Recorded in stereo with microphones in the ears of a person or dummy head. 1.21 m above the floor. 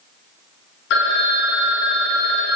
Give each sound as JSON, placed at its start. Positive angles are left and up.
{"t": 0.9, "sound": "a phone ringing", "side_deg": 65, "distance_m": 0.9}